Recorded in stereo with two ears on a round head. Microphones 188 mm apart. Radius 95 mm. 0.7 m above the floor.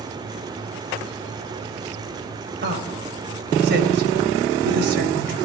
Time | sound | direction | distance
2.6 | a woman speaking | 55° right (ahead or behind) | 3.5 m